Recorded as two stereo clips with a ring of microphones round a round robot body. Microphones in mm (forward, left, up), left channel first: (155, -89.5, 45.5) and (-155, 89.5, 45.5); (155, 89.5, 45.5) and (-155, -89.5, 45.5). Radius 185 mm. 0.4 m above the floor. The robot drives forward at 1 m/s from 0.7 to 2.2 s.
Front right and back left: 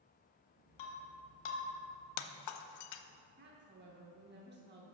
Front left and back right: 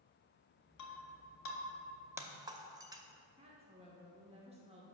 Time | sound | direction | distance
0.8 | breaking glass | 15° right | 1.6 m
3.4 | a woman speaking | 155° left | 0.9 m